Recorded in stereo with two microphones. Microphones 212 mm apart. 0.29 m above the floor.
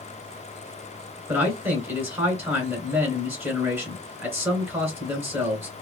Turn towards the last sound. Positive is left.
turn(degrees=-10)  # may be behind; listen again after turning